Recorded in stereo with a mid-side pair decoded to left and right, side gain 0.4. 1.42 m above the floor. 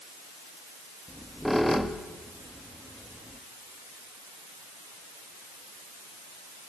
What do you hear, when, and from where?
1.1 s a squeak: 5° left, 1.8 m